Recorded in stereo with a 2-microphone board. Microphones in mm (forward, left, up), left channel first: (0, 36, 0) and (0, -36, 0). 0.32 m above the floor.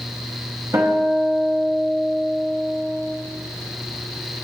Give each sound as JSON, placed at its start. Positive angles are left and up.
{"t": 0.7, "sound": "a guitar", "side_deg": -50, "distance_m": 0.9}